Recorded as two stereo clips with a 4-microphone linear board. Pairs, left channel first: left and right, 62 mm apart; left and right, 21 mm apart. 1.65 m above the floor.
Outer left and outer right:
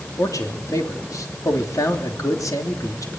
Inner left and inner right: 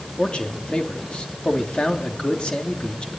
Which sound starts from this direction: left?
A man speaking, at 0.2 s.